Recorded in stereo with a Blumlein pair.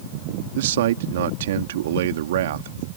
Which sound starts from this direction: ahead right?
A man speaking, at 0.6 s.